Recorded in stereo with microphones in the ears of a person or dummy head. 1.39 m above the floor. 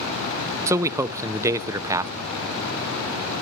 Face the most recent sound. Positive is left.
turn(degrees=-20)  # may be behind; listen again after turning